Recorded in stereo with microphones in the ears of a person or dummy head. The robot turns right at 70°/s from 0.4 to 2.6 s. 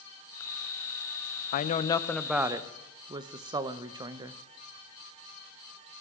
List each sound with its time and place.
1.5 s a woman speaking: 135° left, 0.6 m; by 4.4 s 145° right, 0.6 m